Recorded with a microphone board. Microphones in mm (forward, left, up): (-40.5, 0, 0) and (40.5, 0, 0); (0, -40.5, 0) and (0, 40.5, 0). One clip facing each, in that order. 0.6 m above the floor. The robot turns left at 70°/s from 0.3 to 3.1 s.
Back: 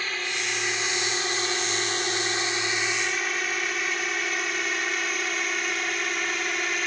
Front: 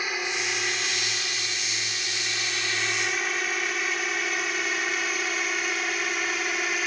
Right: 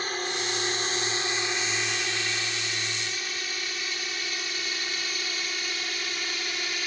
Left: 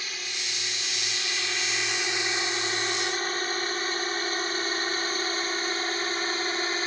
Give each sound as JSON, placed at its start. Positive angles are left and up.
{"t": 0.0, "sound": "a drone", "azimuth_deg": -70}